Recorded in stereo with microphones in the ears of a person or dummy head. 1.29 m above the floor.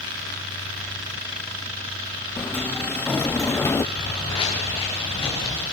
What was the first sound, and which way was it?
A sliding door, 10° left (ahead or behind).